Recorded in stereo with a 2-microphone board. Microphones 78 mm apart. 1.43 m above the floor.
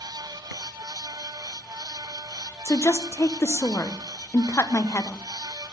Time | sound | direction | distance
2.6 | a woman speaking | 35° left (ahead or behind) | 1.0 m